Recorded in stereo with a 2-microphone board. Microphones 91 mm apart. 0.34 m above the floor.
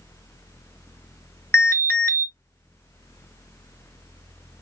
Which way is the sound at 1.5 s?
25° left (ahead or behind).